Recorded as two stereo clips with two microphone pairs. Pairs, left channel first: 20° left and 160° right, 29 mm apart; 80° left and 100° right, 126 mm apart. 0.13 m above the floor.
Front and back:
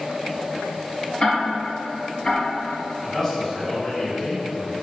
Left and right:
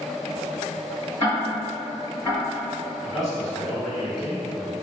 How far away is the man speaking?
About 1.7 m.